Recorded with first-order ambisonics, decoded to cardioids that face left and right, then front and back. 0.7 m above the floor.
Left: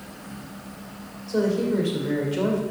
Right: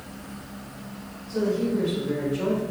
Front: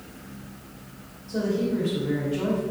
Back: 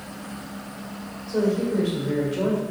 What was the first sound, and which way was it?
A woman speaking, 120° left.